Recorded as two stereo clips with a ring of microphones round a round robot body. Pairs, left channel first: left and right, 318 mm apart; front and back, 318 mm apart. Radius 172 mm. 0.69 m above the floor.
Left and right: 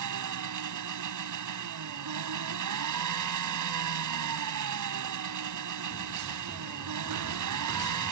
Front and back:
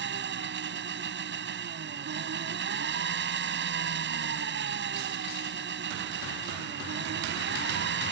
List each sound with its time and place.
0.0 s an engine running: 125° right